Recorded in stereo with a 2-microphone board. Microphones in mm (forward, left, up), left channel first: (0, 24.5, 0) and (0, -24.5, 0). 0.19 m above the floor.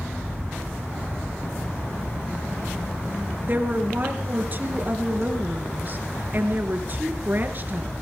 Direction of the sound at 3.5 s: 40° right (ahead or behind).